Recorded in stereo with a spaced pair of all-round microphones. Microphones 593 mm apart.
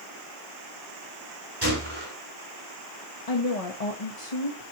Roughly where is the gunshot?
Right.